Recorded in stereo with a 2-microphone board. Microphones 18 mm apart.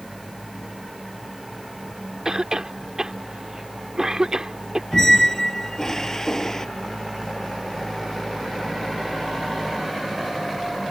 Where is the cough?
35° right (ahead or behind).